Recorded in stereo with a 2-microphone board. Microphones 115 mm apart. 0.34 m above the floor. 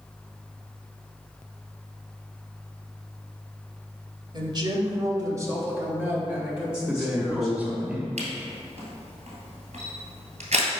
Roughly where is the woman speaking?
Right.